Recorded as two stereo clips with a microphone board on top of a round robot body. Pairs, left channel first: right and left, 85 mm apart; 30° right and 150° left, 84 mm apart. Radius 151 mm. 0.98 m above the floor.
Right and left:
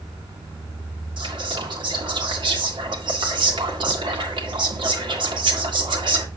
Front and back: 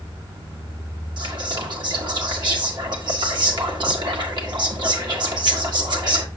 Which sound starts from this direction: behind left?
Whispering, at 1.2 s.